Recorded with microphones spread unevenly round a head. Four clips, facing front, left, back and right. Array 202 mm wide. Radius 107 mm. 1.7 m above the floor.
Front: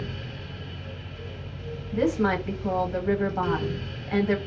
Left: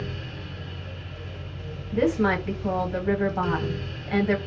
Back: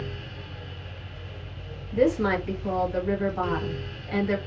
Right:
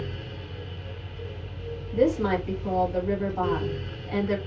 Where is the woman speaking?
65° left, 1.2 m.